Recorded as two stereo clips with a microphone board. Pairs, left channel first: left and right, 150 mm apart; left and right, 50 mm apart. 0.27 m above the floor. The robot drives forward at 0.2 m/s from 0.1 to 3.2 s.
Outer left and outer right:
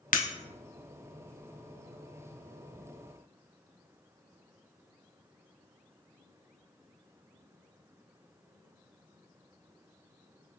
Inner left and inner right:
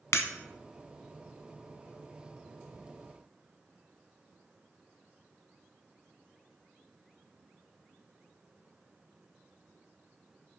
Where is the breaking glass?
65° left (ahead or behind), 0.5 m.